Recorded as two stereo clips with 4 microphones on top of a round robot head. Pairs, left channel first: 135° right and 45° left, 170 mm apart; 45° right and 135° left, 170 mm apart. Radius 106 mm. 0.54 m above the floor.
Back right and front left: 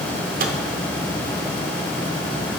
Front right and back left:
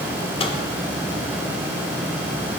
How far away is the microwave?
About 1.0 m.